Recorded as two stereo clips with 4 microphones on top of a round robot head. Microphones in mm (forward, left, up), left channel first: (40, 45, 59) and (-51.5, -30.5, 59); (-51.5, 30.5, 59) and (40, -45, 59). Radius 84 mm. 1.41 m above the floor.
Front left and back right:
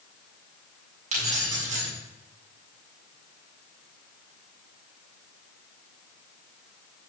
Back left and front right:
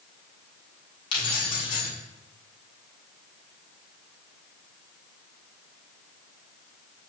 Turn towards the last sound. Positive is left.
turn(degrees=-170)